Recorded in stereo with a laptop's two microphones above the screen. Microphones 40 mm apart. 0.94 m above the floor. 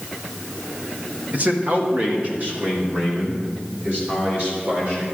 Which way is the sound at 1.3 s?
45° right (ahead or behind).